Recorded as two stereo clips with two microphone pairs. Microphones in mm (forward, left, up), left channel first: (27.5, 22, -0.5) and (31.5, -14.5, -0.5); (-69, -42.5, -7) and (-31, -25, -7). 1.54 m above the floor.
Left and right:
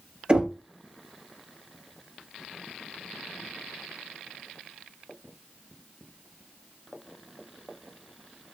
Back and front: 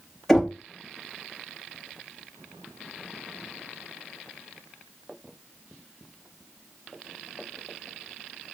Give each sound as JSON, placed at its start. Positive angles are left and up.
{"t": 0.3, "sound": "knocking", "azimuth_deg": -95, "distance_m": 0.8}